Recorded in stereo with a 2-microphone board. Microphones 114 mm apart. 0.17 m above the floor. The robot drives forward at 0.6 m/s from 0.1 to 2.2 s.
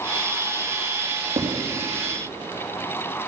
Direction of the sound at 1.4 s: 75° right (ahead or behind).